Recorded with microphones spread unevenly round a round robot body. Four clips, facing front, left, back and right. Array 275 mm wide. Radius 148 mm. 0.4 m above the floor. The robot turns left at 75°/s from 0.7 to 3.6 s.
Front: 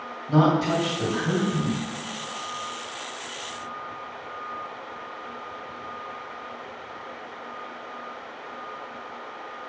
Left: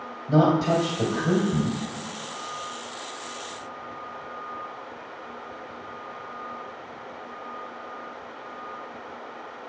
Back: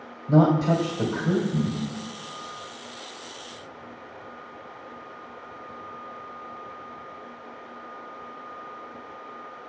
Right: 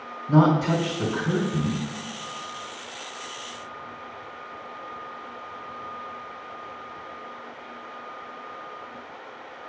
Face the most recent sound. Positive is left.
turn(degrees=-60)